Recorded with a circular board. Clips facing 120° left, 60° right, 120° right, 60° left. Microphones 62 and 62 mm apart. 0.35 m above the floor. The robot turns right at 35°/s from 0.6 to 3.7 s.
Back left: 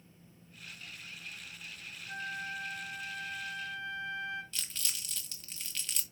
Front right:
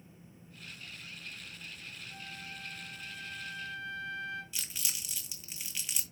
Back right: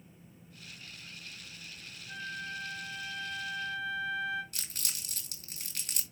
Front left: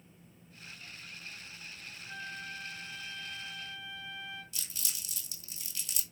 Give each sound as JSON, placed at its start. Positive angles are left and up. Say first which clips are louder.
{"t": 2.1, "sound": "a flute", "louder": "back left 11 dB, back right 3 dB", "azimuth_deg": 135, "distance_m": 2.5}
{"t": 4.5, "sound": "crumpling", "louder": "even, back right 1 dB", "azimuth_deg": -140, "distance_m": 1.4}